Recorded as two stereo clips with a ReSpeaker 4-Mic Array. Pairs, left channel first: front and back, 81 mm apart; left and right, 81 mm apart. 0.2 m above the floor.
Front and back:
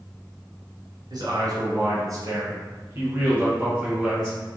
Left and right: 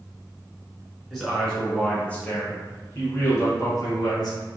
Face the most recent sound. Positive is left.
turn(degrees=95)